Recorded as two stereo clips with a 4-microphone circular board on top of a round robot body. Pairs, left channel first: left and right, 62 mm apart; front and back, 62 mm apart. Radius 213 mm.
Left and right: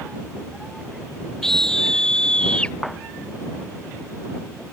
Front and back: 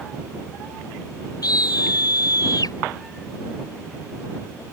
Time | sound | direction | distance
1.4 | a scream | 5° left | ?